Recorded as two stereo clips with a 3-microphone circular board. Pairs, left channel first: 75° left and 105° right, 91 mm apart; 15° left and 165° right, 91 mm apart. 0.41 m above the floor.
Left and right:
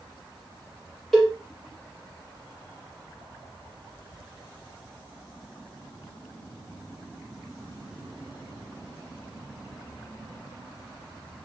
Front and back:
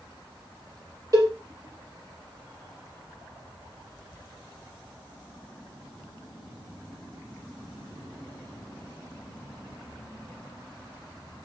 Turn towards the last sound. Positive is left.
turn(degrees=160)